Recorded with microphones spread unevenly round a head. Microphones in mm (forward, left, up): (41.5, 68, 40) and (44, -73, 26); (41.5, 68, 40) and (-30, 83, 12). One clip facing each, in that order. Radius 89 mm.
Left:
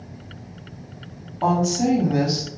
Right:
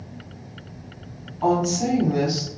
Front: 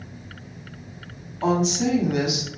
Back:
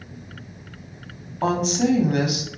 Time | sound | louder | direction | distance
1.4 | a woman speaking | left 1 dB, back 1 dB | 135° left | 0.9 m